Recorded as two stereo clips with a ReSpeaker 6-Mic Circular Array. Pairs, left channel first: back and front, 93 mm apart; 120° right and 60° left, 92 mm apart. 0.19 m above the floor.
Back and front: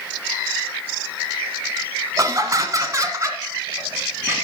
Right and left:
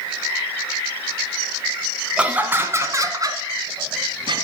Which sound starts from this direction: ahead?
Laughter, at 2.2 s.